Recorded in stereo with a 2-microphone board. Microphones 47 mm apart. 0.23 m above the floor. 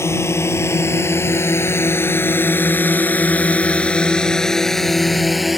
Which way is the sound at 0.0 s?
75° left (ahead or behind).